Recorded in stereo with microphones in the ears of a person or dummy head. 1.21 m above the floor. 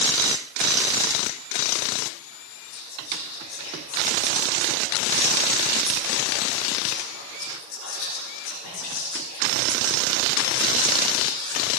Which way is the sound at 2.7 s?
80° left.